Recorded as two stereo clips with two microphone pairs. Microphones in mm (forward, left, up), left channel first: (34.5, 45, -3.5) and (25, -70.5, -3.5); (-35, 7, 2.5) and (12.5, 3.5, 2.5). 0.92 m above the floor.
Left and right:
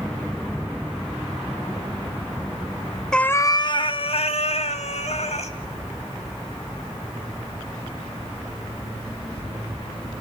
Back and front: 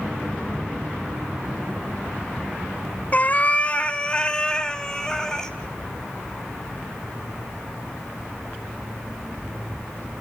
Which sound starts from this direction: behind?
A cat meowing, at 3.1 s.